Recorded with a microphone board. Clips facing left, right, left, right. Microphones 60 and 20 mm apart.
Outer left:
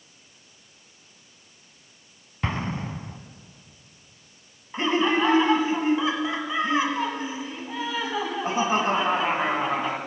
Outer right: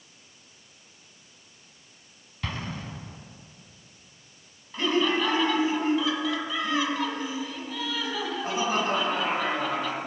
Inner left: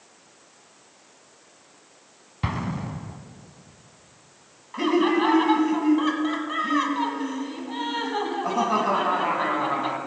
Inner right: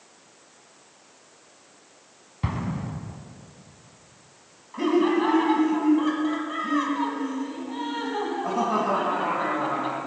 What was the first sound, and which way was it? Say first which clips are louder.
An explosion: outer left 6 dB, inner left 1 dB; 30° left (ahead or behind).